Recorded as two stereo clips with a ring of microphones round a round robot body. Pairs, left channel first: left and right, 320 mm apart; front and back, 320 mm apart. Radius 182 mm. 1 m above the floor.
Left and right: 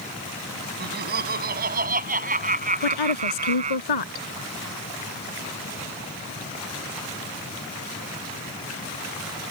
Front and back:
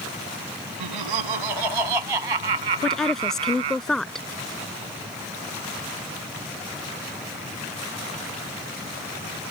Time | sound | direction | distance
0.8 | laughter | 155° right | ?
2.8 | a woman speaking | 90° left | ?